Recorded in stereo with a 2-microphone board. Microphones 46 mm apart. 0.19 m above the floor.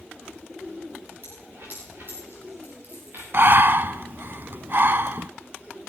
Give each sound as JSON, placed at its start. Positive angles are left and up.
{"t": 1.2, "sound": "a dropped coin", "side_deg": -55, "distance_m": 7.0}
{"t": 3.3, "sound": "breathing", "side_deg": -50, "distance_m": 0.5}